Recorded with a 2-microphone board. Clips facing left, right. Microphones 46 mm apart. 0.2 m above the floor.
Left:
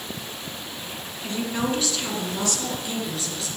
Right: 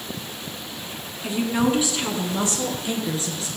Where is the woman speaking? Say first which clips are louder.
Right 5 dB; 15° right (ahead or behind), 2 m; by 3.5 s 30° right (ahead or behind), 3.5 m.